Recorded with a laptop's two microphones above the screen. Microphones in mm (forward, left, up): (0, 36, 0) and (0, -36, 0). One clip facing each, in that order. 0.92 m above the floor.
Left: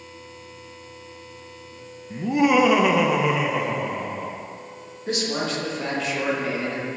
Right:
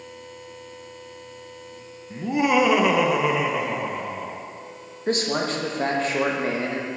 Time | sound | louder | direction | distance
2.1 | laughter | left 2 dB | centre (ahead or behind) | 0.5 m
5.1 | a man speaking | right 2 dB | 40° right (ahead or behind) | 1.1 m